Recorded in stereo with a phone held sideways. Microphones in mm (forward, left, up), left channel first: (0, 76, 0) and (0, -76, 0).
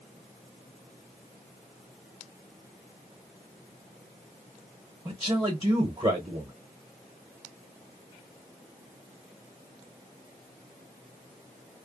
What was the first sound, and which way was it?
A man speaking, 25° right (ahead or behind).